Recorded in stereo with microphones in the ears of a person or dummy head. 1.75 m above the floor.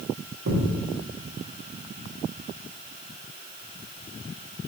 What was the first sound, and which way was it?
A thud, 65° right (ahead or behind).